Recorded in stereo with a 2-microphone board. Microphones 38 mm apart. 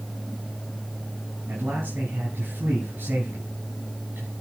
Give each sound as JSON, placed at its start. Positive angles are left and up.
{"t": 1.5, "sound": "a man speaking", "side_deg": -70, "distance_m": 4.5}